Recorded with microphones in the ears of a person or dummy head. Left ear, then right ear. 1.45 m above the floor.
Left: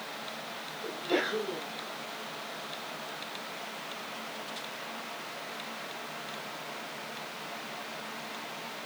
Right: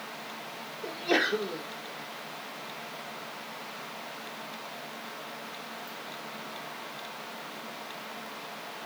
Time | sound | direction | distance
0.8 | a sneeze | 70° right (ahead or behind) | 0.8 m